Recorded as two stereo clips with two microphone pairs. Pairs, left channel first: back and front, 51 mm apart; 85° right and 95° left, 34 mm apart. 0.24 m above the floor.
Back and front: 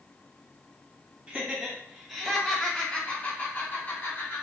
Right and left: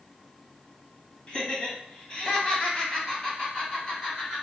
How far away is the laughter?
About 1.4 m.